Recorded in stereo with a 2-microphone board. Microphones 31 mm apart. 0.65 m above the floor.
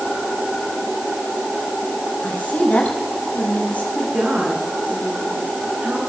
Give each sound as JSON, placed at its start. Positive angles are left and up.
{"t": 2.2, "sound": "a woman speaking", "side_deg": 55, "distance_m": 5.0}
{"t": 4.0, "sound": "a woman speaking", "side_deg": -45, "distance_m": 9.5}